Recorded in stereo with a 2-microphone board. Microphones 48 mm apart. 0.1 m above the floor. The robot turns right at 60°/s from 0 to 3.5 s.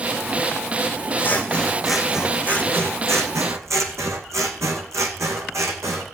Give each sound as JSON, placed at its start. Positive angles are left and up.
{"t": 1.2, "sound": "scissors", "azimuth_deg": 140, "distance_m": 1.9}